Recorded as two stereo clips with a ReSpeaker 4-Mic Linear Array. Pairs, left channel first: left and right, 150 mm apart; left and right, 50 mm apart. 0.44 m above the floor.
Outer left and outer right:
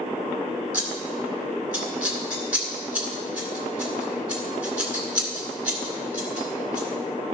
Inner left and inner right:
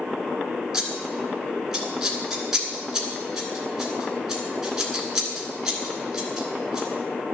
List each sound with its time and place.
0.7 s scissors: 10° right (ahead or behind), 2 m